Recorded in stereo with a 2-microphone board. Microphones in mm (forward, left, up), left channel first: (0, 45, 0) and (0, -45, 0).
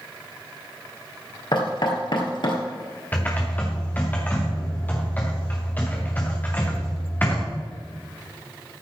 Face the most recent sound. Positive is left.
turn(degrees=20)  # may be behind; listen again after turning